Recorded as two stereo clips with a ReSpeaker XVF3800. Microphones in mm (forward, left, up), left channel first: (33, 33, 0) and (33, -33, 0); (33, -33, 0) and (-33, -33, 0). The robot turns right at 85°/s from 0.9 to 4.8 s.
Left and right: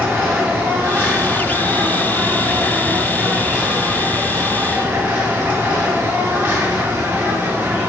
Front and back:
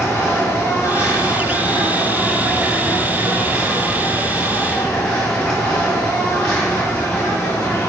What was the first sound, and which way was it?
An insect, 35° right.